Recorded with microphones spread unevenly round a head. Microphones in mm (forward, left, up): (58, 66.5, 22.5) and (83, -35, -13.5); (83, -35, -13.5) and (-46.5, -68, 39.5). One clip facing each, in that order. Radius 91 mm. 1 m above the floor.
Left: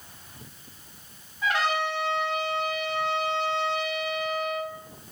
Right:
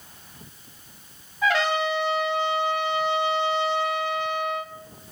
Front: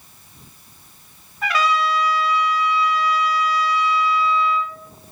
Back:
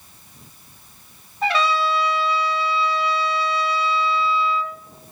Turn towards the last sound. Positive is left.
turn(degrees=-120)